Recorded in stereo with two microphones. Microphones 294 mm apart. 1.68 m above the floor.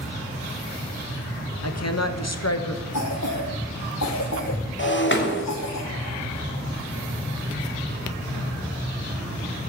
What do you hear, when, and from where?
1.6 s a woman speaking: 60° left (ahead or behind), 1.0 m
2.9 s a cough: 65° left (ahead or behind), 1.3 m
4.8 s breaking glass: 40° left (ahead or behind), 1.8 m